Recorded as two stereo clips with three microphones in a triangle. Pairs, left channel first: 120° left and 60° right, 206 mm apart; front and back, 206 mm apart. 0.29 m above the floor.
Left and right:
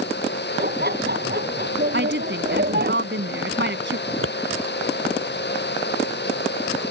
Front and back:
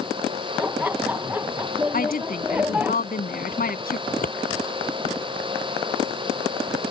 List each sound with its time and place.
0.6 s laughter: 100° right
1.9 s a woman speaking: 40° right
4.1 s scissors: 50° right